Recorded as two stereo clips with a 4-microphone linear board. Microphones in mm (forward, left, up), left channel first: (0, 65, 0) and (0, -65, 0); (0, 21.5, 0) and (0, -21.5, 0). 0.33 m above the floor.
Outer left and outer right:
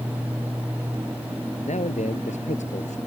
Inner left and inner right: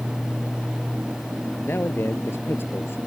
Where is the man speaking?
65° left (ahead or behind).